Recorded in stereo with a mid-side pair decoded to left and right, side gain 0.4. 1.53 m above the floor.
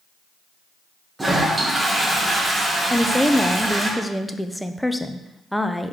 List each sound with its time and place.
1.2 s a toilet flushing: 20° right, 1.8 m
2.9 s a woman speaking: straight ahead, 0.7 m